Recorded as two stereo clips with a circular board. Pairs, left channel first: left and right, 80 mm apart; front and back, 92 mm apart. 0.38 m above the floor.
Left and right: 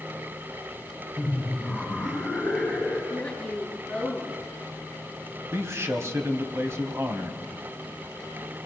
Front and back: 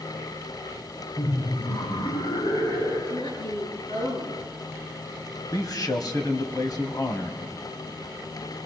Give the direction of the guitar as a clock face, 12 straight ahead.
I don't hear a guitar.